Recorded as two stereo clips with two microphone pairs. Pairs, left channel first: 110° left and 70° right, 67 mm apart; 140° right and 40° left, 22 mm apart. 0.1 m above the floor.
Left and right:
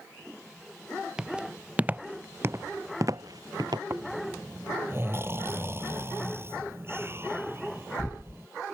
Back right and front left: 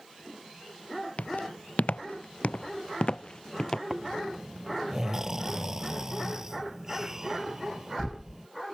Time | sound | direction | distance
1.2 | footsteps | 150° right | ?
3.9 | snoring | 25° right | ?